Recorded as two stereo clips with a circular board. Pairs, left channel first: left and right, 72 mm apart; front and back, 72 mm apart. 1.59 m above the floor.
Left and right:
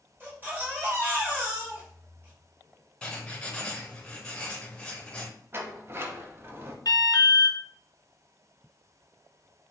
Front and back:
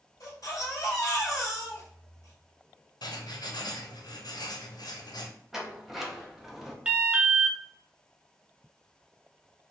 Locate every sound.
0.2 s a baby crying: 30° right, 1.8 m
3.0 s writing: 15° left, 0.7 m
5.5 s a sliding door: 95° right, 0.7 m
6.8 s an alarm: 110° left, 0.8 m